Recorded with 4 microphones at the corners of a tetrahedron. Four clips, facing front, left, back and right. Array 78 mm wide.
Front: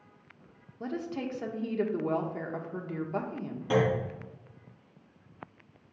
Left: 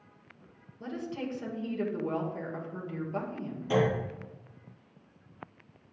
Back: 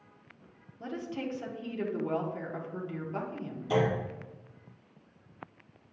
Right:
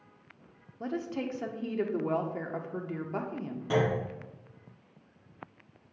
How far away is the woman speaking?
About 1.2 m.